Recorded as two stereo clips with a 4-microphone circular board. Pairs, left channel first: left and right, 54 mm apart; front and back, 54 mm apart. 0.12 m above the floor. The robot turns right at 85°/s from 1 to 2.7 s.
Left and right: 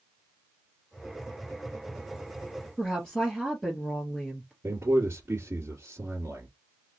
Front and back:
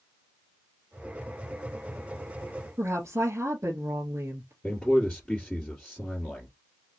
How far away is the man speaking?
About 2.5 m.